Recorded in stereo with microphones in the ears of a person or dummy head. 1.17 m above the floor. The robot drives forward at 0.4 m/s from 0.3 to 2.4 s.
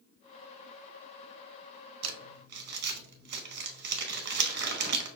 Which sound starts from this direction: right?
Crumpling, at 2.0 s.